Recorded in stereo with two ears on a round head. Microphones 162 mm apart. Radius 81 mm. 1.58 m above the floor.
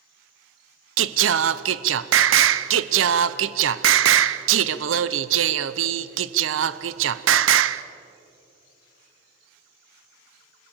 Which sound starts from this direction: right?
Singing, at 1.0 s.